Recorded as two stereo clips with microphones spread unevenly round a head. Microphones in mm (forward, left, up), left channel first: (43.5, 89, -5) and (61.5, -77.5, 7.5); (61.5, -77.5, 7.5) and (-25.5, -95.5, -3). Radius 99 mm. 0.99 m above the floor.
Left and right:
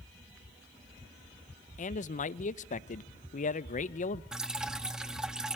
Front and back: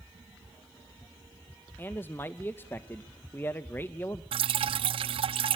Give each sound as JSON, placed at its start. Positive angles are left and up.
{"t": 1.8, "sound": "a man speaking", "azimuth_deg": 85, "distance_m": 0.6}
{"t": 4.3, "sound": "dripping", "azimuth_deg": -165, "distance_m": 0.5}